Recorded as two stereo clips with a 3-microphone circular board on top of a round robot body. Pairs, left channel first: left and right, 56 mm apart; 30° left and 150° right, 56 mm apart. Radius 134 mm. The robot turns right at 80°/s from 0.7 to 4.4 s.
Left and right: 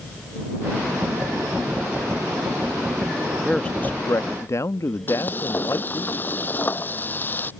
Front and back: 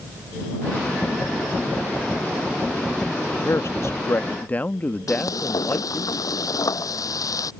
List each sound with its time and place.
3.2 s a man speaking: 15° right; by 6.1 s 85° left
5.1 s frying: 35° left